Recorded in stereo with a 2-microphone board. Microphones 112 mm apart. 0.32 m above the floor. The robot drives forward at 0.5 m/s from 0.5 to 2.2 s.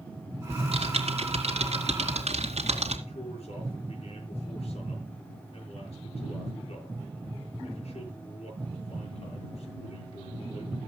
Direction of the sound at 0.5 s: 60° right (ahead or behind).